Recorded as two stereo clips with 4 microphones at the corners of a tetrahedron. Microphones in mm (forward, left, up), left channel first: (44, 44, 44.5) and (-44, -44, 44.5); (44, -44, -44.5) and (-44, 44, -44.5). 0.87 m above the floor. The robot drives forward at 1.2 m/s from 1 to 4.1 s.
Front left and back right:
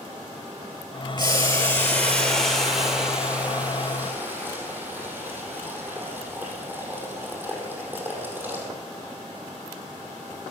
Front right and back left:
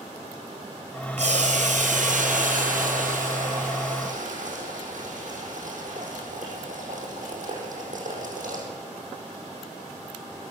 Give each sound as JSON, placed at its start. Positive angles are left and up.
{"t": 1.2, "sound": "boiling", "azimuth_deg": 100, "distance_m": 2.5}